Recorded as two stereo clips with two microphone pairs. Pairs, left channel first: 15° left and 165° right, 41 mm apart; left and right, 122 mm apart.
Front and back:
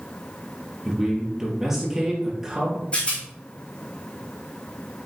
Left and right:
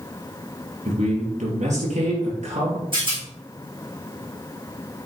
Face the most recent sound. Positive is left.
turn(degrees=-45)